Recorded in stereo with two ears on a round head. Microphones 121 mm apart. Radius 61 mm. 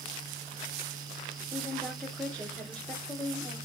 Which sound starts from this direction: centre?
A woman speaking, at 1.5 s.